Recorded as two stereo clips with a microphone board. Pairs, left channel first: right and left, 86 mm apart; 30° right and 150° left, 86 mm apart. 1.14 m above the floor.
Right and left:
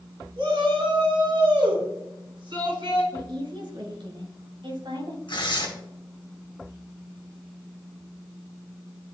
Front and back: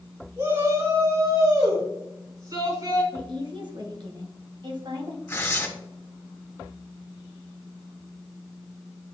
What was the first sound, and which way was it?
A shout, 110° left.